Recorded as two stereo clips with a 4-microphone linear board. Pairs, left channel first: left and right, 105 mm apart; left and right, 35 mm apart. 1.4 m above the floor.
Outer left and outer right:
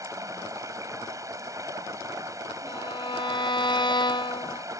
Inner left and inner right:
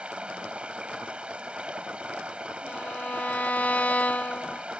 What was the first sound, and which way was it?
Running water, 35° right (ahead or behind).